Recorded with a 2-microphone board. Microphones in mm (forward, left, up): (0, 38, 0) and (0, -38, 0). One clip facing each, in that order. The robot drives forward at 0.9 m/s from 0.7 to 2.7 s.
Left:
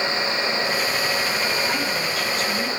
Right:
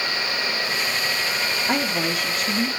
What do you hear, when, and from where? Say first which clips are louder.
1.7 s a woman speaking: right 1 dB; 65° right (ahead or behind), 1.6 m; by 2.7 s 45° right (ahead or behind), 2 m